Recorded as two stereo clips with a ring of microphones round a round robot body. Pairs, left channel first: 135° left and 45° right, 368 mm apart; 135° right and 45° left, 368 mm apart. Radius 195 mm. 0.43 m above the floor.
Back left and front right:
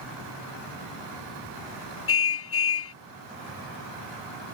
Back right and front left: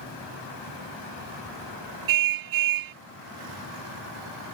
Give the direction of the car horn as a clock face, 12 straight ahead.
9 o'clock.